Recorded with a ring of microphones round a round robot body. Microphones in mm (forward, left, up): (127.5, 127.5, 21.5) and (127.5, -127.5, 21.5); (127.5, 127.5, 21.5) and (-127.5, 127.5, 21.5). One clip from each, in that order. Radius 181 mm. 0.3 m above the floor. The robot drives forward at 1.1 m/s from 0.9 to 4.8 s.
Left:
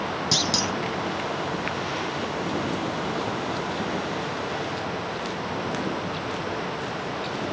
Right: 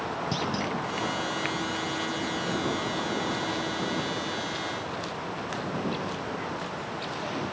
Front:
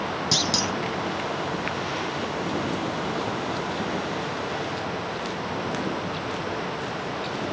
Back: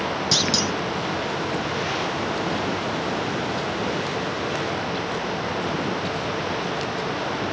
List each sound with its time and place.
0.3 s a clunk: 115° left